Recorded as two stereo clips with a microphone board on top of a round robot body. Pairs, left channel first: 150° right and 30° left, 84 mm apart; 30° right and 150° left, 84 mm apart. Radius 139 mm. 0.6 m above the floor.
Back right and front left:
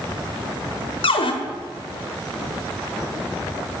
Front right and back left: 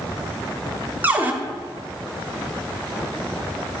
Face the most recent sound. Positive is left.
turn(degrees=-140)